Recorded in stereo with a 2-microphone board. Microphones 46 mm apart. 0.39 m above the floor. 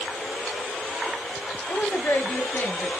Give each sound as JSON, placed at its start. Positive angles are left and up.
{"t": 1.7, "sound": "a woman speaking", "side_deg": 50, "distance_m": 2.5}